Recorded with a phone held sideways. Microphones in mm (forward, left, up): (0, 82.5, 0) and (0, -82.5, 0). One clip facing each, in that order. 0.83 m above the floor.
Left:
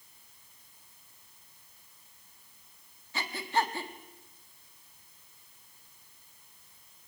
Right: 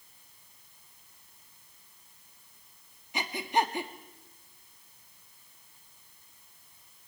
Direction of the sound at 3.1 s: 15° right (ahead or behind).